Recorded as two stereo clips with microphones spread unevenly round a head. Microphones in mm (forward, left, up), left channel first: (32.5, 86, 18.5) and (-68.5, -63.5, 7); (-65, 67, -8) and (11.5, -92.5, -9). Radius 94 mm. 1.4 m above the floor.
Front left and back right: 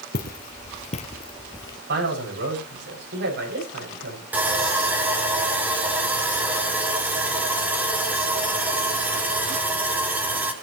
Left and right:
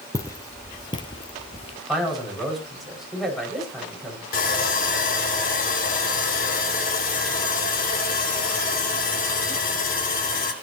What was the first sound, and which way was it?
Footsteps, 45° left.